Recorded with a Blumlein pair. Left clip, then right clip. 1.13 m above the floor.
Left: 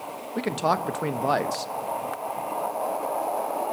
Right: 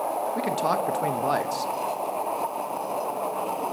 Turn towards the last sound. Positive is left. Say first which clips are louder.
# left 4 dB
turn(degrees=5)